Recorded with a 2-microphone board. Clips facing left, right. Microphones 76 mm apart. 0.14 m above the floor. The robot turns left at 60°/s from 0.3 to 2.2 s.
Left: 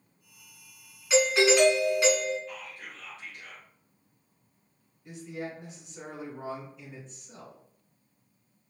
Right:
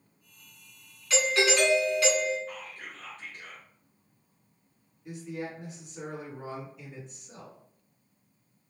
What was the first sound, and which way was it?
A doorbell, 15° left (ahead or behind).